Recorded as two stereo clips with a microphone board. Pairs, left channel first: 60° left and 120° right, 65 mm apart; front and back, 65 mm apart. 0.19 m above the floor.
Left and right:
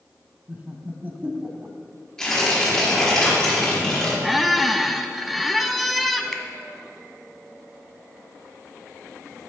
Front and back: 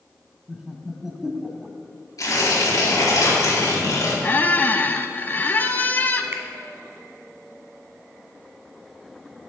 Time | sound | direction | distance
0.5 | laughter | 105° right | 1.1 m
2.2 | tearing paper | 20° right | 4 m
4.2 | a squeak | 30° right | 0.6 m
6.3 | a finger snap | 145° left | 1.1 m